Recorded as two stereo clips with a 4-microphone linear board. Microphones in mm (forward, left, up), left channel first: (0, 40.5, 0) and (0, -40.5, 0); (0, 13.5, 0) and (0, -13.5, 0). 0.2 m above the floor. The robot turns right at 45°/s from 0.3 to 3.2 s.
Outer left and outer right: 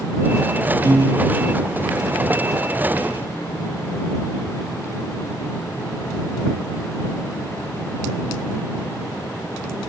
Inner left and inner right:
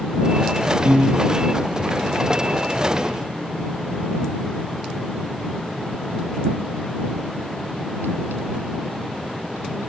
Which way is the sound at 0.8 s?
55° right (ahead or behind).